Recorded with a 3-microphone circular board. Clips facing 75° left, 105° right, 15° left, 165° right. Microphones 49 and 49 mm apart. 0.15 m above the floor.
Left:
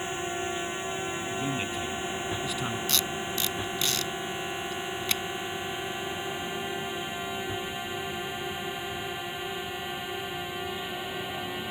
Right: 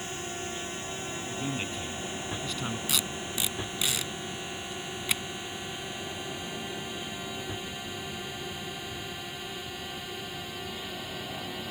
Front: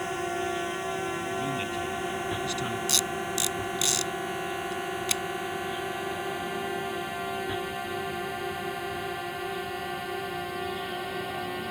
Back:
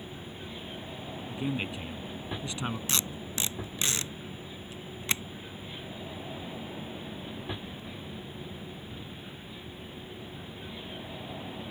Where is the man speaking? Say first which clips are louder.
Left 1 dB, front 4 dB; 155° left.